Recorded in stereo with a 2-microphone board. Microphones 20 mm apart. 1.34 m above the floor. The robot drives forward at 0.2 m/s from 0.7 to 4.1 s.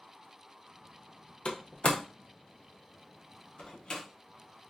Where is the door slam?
65° left (ahead or behind), 0.5 m; by 4.0 s 45° left (ahead or behind), 0.7 m.